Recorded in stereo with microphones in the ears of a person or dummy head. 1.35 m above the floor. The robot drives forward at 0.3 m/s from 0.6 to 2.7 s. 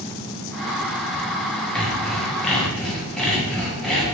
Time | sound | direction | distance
1.8 | sawing | 5° left (ahead or behind) | 1.1 m